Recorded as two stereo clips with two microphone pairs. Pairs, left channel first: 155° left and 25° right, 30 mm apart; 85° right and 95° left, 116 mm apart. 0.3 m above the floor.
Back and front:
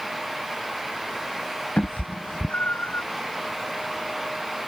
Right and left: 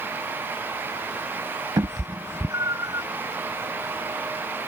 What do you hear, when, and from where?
1.8 s a cat meowing: 140° left; by 3.1 s 150° left